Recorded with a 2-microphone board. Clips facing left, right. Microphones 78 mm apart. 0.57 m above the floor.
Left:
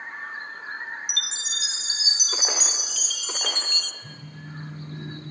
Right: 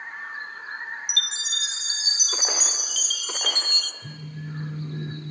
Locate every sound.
1.1 s a chime: 55° right (ahead or behind), 0.7 m
4.0 s a phone buzzing: 60° right (ahead or behind), 5.5 m